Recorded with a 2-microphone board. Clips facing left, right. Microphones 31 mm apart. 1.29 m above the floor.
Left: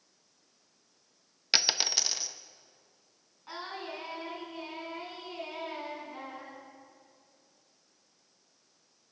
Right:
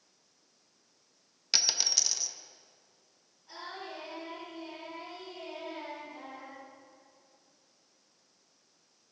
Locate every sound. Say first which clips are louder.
1.5 s a dropped coin: left 2 dB; 25° left (ahead or behind), 0.6 m
3.5 s singing: left 3 dB; 60° left (ahead or behind), 5.5 m